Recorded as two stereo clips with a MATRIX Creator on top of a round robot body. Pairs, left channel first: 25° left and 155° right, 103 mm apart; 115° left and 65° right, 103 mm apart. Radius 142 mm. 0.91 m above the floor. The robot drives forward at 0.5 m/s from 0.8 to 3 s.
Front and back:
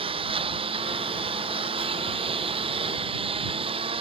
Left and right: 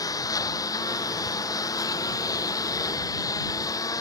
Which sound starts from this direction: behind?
A lawn mower, at 0.0 s.